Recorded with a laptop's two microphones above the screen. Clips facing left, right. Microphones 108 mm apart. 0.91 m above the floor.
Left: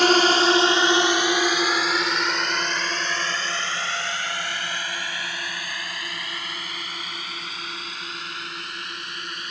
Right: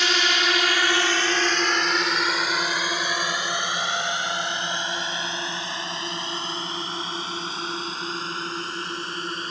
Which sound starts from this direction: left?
A drone, at 0.0 s.